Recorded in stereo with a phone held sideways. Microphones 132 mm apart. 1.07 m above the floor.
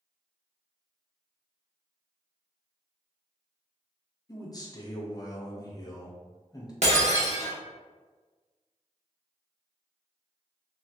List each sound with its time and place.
4.3 s a man speaking: 30° left (ahead or behind), 0.7 m
6.8 s breaking glass: 60° right (ahead or behind), 0.9 m